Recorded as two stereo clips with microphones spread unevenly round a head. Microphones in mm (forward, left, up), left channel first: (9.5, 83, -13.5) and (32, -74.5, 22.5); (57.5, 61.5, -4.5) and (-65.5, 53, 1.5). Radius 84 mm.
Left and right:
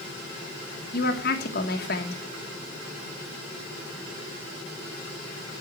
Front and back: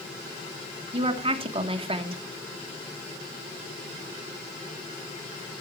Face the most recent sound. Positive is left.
turn(degrees=140)